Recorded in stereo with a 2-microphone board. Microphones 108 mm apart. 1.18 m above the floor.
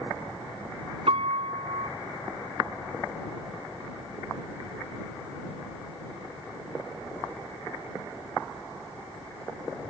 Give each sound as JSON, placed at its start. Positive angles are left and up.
{"t": 1.1, "sound": "a piano", "side_deg": -70}